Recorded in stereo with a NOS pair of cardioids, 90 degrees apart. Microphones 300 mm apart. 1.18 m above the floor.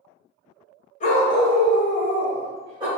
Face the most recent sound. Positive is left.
turn(degrees=-15)